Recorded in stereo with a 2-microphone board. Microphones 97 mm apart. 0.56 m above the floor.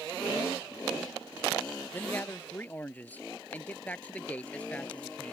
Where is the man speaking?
20° left (ahead or behind); by 5.3 s 10° left (ahead or behind).